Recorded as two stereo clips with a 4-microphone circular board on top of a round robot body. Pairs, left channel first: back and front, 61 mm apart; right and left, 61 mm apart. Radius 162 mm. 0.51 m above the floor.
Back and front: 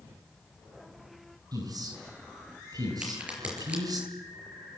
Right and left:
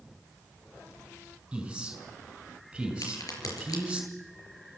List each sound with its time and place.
1.5 s a man speaking: 15° left, 6 m
3.0 s a crack: 70° right, 4.5 m